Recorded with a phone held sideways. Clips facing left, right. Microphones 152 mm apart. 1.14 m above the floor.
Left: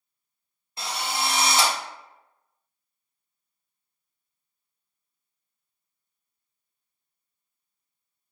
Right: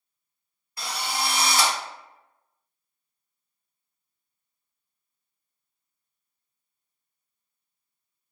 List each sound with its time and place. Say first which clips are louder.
0.8 s a drill: left 1 dB; 25° left (ahead or behind), 0.5 m